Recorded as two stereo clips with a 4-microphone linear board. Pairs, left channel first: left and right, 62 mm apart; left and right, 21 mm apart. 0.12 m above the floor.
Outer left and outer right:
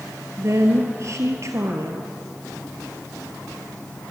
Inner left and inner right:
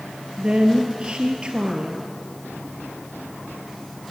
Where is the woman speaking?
50° right (ahead or behind), 2 m.